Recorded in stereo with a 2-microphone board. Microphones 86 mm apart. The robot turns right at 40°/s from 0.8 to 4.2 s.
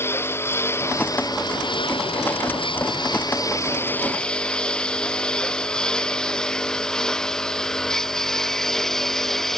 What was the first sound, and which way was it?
A lawn mower, 25° left (ahead or behind).